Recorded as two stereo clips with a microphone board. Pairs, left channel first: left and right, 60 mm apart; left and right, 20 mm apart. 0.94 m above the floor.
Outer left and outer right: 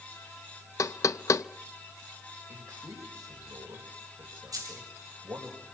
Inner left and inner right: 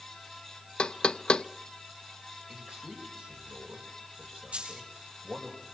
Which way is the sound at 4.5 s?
80° right.